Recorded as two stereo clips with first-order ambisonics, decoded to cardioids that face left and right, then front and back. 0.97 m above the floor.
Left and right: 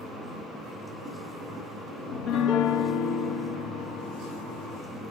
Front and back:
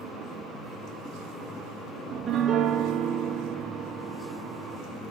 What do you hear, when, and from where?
2.1 s a piano: 120° left, 1.5 m